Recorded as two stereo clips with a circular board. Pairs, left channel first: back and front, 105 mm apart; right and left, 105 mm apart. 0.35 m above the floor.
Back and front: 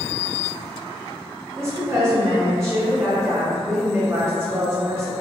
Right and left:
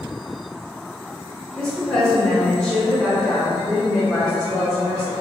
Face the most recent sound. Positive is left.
turn(degrees=-10)